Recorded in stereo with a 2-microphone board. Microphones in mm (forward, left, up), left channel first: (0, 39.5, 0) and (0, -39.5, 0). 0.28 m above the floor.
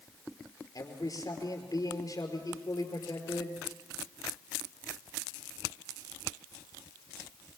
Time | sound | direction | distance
0.8 | a man speaking | 55° left (ahead or behind) | 5 m